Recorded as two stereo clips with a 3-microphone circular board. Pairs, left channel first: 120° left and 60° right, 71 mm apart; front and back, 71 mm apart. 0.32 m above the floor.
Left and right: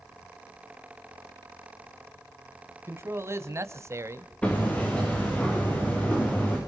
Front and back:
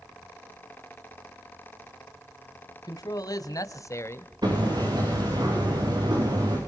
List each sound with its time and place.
2.8 s a man speaking: 10° right, 2.5 m; by 4.3 s 40° right, 1.3 m
4.4 s hammering: 165° right, 7.5 m